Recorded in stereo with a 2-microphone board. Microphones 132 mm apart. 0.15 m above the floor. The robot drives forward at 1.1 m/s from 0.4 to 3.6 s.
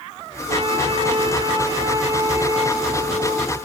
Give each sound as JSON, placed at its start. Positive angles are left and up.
{"t": 0.5, "sound": "a flute", "side_deg": -45, "distance_m": 2.5}